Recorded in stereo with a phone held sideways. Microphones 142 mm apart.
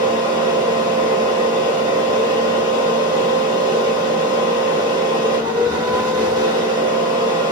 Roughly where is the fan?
Right.